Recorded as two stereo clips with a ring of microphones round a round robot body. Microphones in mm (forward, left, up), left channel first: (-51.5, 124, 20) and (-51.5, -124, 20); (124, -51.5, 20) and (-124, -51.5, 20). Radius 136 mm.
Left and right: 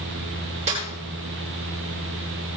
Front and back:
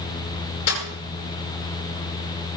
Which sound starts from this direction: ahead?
A snare drum, at 0.7 s.